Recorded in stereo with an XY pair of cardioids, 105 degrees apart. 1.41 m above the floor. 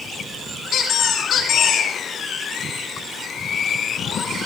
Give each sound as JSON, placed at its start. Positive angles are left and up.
{"t": 0.7, "sound": "a squeak", "azimuth_deg": 65, "distance_m": 2.0}